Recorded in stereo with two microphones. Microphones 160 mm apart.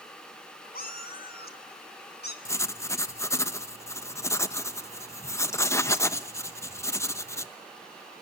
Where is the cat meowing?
65° left (ahead or behind), 2 m; by 2.4 s 85° left, 2 m.